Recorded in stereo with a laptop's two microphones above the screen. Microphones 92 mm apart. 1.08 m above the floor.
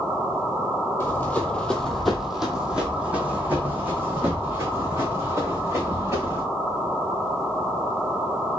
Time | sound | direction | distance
1.0 | running footsteps | 25° left (ahead or behind) | 1.2 m